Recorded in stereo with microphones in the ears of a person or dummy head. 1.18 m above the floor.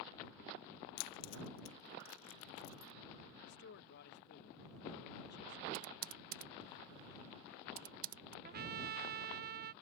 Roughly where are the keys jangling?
Left.